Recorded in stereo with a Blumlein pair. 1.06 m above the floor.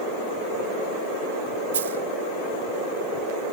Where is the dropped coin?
65° right.